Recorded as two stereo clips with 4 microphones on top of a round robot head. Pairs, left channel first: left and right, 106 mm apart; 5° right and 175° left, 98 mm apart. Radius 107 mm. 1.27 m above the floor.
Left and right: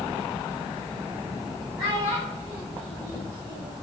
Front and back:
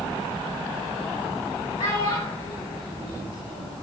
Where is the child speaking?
15° right, 3.5 m; by 3.7 s 25° right, 4.5 m.